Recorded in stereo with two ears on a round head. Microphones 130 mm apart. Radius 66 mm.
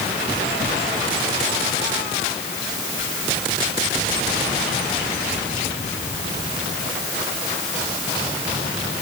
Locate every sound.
Only background noise.